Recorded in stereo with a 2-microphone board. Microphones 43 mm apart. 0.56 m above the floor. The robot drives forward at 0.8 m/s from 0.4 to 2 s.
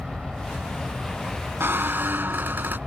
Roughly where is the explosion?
I don't hear an explosion.